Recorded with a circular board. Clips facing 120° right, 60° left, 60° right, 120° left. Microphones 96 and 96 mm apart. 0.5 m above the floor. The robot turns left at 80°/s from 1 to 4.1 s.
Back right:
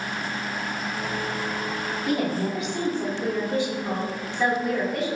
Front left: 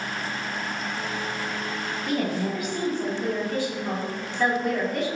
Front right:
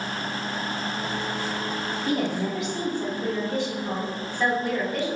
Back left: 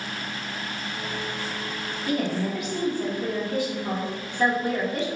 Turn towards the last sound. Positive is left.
turn(degrees=155)